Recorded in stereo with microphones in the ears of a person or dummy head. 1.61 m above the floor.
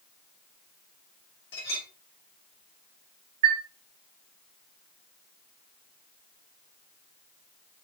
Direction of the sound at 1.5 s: 25° left (ahead or behind).